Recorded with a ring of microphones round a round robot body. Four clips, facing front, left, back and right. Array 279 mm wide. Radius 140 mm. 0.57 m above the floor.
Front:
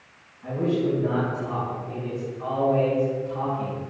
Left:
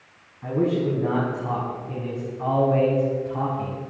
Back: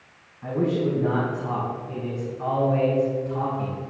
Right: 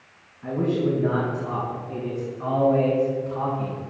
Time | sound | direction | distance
0.4 | a man speaking | 130° left | 5 m